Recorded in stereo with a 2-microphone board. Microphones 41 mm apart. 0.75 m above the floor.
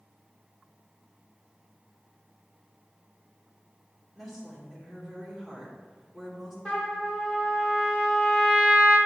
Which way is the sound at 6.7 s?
20° left (ahead or behind).